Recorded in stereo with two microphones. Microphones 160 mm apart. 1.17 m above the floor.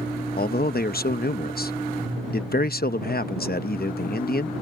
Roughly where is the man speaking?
Left.